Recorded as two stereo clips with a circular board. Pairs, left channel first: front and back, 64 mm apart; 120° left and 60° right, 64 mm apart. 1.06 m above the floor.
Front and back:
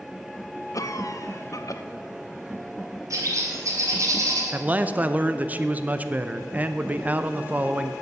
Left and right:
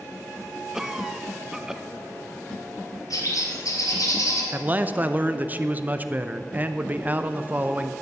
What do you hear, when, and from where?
0.7 s a cough: 20° left, 0.9 m
3.1 s a bird: 145° left, 2.5 m
4.5 s a man speaking: 115° right, 0.6 m